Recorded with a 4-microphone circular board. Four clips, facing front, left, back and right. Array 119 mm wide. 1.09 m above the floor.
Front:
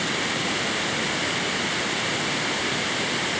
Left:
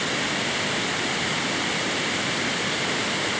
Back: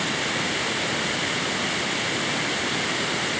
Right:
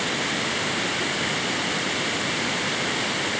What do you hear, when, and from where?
Only background noise.